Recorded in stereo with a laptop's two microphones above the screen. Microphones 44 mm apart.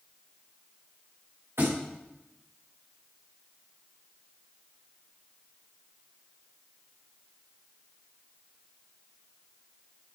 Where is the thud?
75° right (ahead or behind), 6 m.